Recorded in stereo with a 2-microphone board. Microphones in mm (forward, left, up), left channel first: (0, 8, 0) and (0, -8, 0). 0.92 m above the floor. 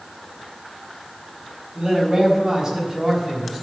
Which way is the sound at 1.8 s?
40° right (ahead or behind).